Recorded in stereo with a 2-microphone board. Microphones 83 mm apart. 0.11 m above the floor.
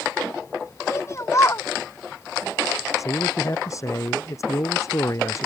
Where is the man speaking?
40° left (ahead or behind).